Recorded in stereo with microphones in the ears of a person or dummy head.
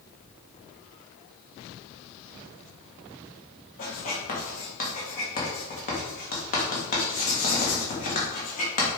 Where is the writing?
45° left (ahead or behind), 2 m.